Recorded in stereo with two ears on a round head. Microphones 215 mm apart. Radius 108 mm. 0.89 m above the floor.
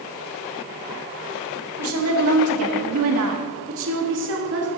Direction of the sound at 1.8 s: 60° right (ahead or behind).